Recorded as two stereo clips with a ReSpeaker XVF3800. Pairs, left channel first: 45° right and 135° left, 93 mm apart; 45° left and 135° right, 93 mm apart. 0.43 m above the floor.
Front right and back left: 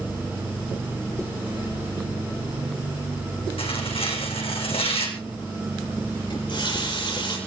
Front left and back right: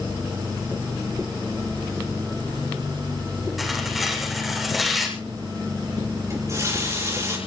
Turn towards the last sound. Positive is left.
turn(degrees=-80)